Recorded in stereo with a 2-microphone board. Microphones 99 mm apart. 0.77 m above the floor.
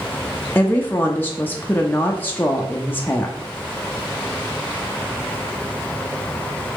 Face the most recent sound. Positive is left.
turn(degrees=20)  # may be behind; listen again after turning